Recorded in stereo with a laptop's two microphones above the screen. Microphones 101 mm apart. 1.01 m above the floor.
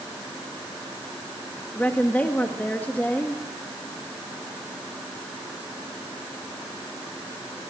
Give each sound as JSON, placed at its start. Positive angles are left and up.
{"t": 1.8, "sound": "a woman speaking", "side_deg": 15, "distance_m": 1.4}